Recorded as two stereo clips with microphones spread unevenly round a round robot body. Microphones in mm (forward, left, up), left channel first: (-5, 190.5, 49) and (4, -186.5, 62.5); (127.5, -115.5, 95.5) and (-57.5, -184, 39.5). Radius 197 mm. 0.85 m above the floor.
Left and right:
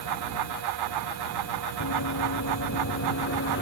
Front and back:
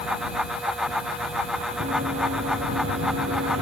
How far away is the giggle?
No giggle in this recording.